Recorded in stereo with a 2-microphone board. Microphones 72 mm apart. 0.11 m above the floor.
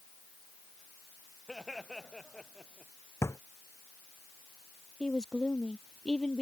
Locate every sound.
1.5 s laughter: 5° left (ahead or behind)
3.2 s a drawer: 40° left (ahead or behind)
5.0 s a woman speaking: 10° left (ahead or behind)